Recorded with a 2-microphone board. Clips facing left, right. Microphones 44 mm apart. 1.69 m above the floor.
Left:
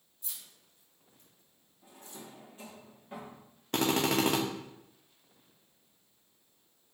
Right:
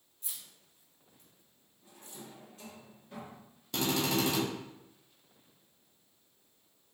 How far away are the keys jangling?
About 1.7 m.